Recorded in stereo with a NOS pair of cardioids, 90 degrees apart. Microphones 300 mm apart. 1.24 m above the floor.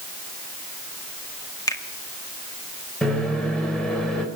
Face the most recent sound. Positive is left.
turn(degrees=0)